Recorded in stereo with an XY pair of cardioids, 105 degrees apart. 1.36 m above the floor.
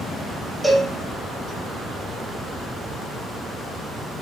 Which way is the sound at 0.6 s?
Straight ahead.